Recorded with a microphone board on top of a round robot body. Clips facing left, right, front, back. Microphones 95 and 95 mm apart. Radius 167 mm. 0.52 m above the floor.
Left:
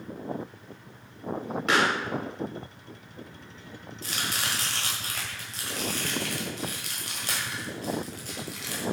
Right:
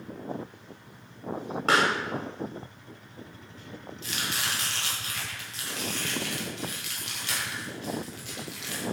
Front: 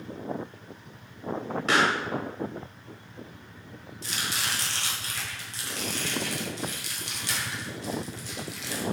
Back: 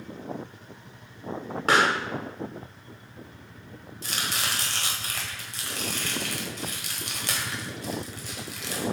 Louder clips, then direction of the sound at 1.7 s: Right 1 dB, back 2 dB; 140° right.